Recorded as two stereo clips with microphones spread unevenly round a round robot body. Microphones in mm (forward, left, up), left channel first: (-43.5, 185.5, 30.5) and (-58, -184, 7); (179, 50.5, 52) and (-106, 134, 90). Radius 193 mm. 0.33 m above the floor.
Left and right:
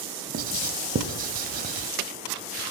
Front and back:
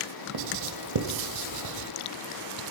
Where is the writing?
160° right, 0.7 m.